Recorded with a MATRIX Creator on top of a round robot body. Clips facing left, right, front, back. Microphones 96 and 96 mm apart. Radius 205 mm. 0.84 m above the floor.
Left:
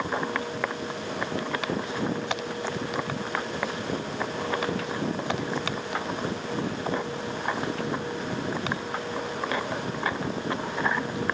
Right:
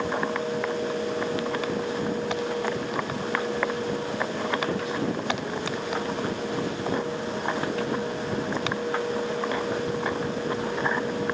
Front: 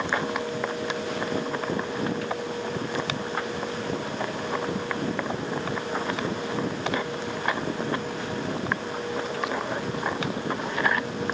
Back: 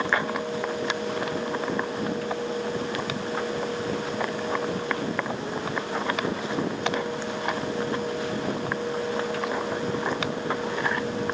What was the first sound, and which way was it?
Only background noise.